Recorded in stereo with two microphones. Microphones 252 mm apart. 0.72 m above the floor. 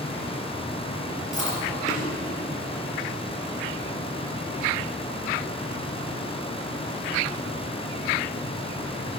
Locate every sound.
1.3 s chewing: 30° left (ahead or behind), 4.5 m